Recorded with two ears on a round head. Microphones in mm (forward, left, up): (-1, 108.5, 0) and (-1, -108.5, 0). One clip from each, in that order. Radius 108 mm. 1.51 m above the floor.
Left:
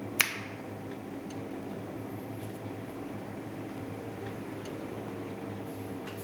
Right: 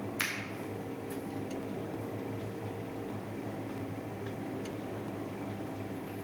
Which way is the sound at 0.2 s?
30° left (ahead or behind).